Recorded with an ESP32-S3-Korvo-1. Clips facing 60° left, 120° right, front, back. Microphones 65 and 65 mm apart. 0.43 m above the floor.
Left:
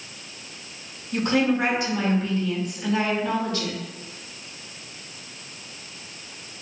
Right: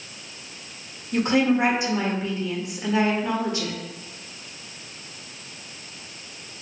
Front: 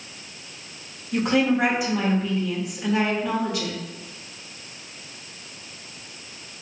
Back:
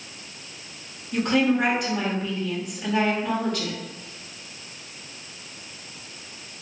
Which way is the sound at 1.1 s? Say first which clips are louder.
Right 1 dB, even; 75° right.